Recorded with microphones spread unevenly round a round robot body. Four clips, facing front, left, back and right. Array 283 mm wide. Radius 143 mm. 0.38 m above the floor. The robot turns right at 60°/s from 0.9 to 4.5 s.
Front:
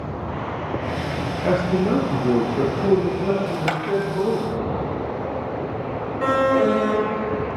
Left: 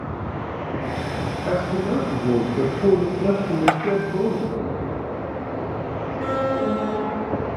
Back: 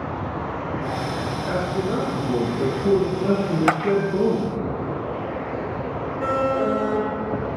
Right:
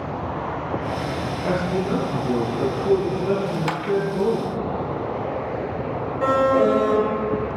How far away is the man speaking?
About 8.5 m.